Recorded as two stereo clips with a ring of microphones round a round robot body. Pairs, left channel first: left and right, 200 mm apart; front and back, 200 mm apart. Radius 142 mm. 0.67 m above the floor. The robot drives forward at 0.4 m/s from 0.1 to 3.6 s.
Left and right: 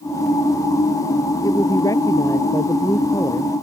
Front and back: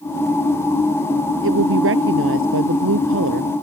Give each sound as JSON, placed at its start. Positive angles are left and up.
{"t": 1.4, "sound": "a woman speaking", "azimuth_deg": 170}